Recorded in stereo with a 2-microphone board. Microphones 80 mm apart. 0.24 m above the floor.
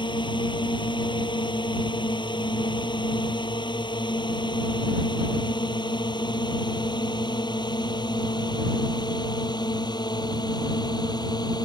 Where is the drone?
75° left (ahead or behind); by 11.7 s 60° left (ahead or behind).